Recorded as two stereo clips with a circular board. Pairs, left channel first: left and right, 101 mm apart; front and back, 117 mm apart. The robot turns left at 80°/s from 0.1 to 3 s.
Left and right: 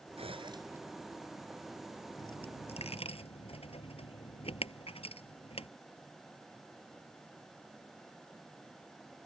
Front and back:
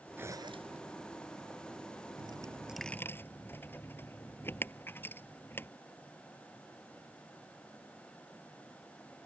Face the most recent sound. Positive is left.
turn(degrees=75)